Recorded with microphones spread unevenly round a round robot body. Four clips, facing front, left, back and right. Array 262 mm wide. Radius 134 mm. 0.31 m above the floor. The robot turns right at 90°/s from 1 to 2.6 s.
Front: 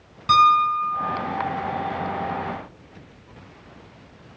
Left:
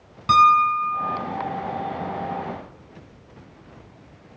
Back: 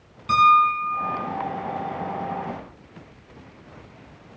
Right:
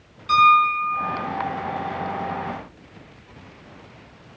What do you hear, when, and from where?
0.3 s a piano: 70° left, 2.5 m; by 1.2 s 85° left, 2.5 m